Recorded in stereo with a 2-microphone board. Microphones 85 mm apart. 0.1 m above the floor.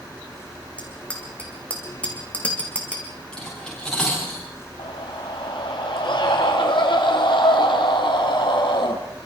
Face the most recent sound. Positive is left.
turn(degrees=70)  # may be behind; listen again after turning